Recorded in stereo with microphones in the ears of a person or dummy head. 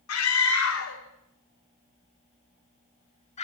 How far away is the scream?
About 3.5 m.